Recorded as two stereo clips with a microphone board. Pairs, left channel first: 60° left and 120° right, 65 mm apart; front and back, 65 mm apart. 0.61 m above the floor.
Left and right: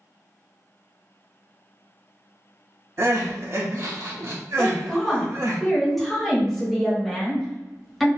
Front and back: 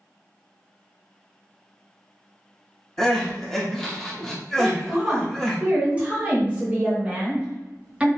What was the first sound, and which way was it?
Crying, 85° right.